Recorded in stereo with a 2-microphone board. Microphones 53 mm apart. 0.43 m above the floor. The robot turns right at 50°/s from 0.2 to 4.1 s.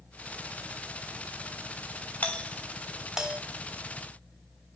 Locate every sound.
2.2 s a doorbell: 30° left (ahead or behind), 3 m; by 3.4 s 20° right (ahead or behind), 3 m